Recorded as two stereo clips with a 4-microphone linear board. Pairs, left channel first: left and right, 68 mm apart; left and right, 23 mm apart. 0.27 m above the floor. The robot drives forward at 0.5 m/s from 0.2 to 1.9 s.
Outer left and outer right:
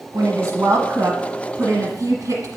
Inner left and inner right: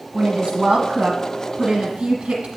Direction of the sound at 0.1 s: 55° right (ahead or behind).